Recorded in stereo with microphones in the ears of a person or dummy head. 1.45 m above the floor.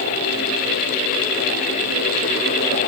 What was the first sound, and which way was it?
Only background noise.